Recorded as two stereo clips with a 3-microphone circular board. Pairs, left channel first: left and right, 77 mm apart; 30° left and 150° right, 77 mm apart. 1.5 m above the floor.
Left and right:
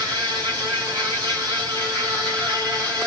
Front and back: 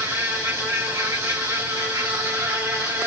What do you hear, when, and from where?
0.0 s an insect: 100° right, 2 m